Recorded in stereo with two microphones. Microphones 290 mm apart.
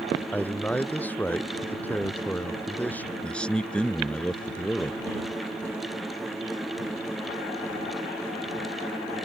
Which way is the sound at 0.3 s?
5° left (ahead or behind).